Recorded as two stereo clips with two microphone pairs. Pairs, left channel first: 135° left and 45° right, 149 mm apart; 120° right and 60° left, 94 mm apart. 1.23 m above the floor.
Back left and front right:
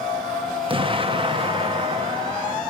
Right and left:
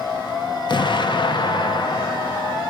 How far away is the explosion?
About 0.9 m.